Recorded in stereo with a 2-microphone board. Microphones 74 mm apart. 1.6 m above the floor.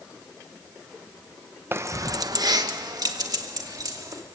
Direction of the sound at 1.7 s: 30° right (ahead or behind).